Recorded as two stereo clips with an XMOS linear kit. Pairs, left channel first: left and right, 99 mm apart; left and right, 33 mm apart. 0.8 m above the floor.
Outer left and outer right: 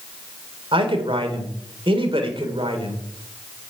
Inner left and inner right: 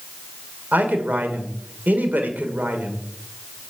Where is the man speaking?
65° right (ahead or behind), 2.5 m.